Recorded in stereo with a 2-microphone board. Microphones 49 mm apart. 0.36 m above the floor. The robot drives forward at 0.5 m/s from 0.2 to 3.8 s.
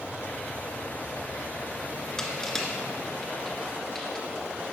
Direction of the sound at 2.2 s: 10° left (ahead or behind).